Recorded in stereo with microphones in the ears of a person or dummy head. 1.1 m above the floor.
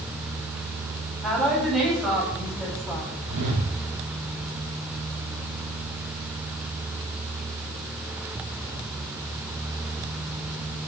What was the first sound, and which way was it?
A woman speaking, centre (ahead or behind).